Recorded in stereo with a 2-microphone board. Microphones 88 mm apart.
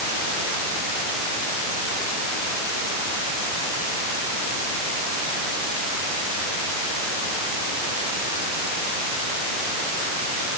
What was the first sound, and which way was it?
Only background noise.